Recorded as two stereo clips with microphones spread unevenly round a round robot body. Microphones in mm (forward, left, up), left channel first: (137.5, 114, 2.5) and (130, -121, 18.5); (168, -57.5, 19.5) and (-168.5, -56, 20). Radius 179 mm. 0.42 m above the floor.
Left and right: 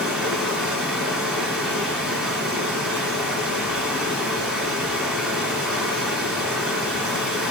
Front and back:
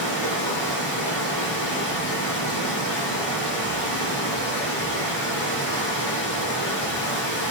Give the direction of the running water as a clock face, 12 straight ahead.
12 o'clock.